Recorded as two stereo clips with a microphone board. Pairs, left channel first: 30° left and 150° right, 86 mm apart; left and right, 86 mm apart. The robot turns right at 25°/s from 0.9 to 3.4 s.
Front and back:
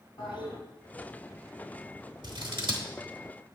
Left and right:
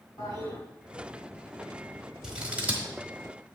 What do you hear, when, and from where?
0.2 s a toilet flushing: 45° left, 3.5 m
2.2 s scissors: 170° right, 1.3 m; by 2.9 s 155° right, 1.3 m